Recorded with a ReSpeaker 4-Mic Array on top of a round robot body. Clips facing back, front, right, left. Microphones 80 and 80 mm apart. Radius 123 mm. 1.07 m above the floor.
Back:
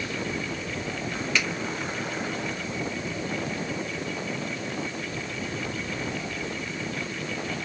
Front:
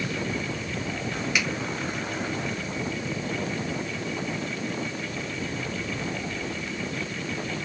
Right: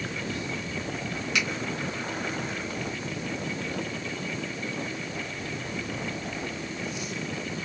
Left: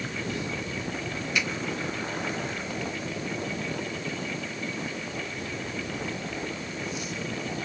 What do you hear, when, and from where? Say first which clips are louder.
1.4 s a finger snap: back 1 dB, even; 80° right, 1.4 m